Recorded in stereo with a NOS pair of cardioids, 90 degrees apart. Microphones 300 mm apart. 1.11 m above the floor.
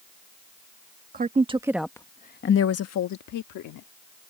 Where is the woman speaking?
30° right; by 3.9 s 80° left.